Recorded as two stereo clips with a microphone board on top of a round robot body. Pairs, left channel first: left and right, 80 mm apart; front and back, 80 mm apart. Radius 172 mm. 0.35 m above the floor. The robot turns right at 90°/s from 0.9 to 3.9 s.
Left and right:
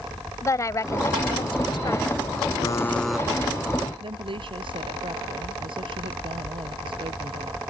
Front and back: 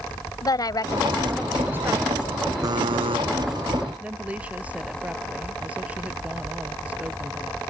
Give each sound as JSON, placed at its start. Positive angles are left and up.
{"t": 0.4, "sound": "a woman speaking", "azimuth_deg": 40}
{"t": 2.6, "sound": "a buzzer", "azimuth_deg": 135}
{"t": 4.0, "sound": "a woman speaking", "azimuth_deg": -105}